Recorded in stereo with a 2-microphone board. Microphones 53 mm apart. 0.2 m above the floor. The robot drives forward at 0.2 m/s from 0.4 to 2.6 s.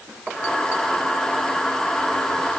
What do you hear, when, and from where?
Only background noise.